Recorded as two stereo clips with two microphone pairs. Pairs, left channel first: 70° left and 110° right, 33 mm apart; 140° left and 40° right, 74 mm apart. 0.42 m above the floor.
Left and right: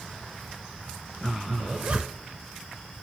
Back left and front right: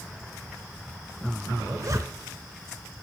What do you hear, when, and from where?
1.6 s a zipper: 75° right, 0.7 m